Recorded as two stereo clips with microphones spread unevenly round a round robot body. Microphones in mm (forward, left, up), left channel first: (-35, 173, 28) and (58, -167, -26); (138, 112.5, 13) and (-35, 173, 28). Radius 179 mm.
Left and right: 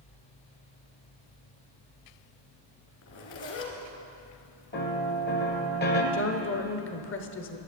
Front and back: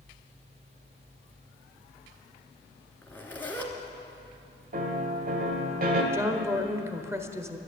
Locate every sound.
3.0 s a zipper: 60° left, 2.5 m
4.7 s a piano: 170° left, 1.5 m
6.1 s a woman speaking: 90° left, 1.1 m